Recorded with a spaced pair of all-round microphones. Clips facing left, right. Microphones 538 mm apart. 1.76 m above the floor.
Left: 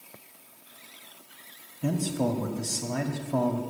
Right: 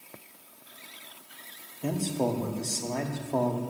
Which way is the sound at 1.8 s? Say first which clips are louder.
Left 1 dB; 35° left (ahead or behind).